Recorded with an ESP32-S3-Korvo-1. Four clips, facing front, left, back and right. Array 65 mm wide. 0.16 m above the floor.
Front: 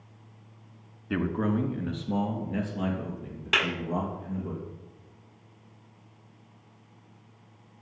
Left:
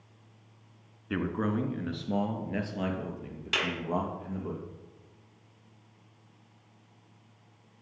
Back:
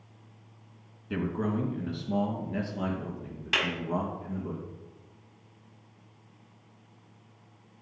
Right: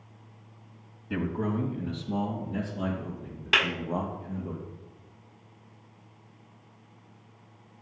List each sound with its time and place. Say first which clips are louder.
1.1 s a man speaking: even, front 3 dB; 40° left, 1.5 m; by 4.5 s 85° left, 5 m
3.5 s a clap: right 6 dB, front 3 dB; 70° right, 1.5 m